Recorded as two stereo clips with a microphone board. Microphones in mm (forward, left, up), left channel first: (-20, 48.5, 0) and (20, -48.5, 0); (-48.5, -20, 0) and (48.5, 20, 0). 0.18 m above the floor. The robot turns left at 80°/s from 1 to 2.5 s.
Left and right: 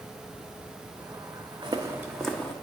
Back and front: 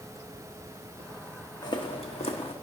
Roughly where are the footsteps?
Right.